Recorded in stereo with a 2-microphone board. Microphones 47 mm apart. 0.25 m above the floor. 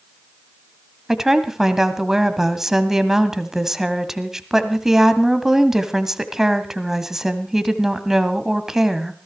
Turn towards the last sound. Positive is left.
turn(degrees=-10)  # may be behind; listen again after turning